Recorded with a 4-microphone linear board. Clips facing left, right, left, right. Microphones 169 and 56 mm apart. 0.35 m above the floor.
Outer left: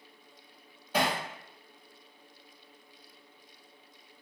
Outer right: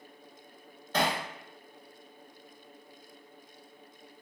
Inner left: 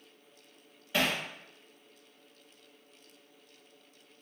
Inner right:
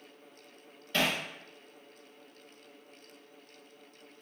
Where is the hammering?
10° left (ahead or behind), 0.6 m.